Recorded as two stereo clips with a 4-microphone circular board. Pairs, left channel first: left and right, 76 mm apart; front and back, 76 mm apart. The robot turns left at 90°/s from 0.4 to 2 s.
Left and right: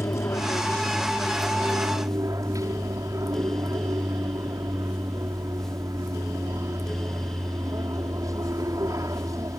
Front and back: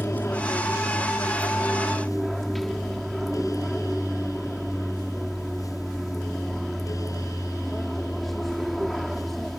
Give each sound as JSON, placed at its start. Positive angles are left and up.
{"t": 0.0, "sound": "an aircraft", "azimuth_deg": 55}